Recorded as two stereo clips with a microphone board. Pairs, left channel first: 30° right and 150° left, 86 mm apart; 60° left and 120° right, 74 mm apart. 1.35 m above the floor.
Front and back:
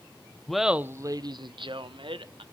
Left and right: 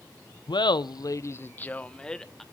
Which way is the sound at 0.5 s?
55° left.